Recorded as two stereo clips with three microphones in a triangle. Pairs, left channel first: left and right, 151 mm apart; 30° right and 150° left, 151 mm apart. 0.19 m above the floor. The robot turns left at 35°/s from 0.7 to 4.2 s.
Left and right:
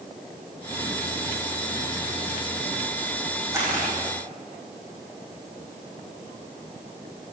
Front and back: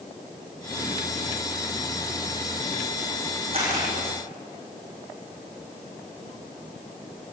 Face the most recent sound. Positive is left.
turn(degrees=175)